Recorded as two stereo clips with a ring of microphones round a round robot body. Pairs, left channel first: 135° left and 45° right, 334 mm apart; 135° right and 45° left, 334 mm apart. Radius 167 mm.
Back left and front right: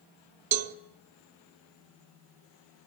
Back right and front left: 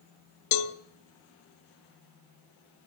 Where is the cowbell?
95° right, 0.8 m.